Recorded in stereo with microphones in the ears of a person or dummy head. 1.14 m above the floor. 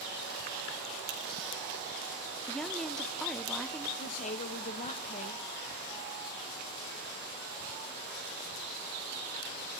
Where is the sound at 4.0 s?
35° left (ahead or behind), 0.8 m.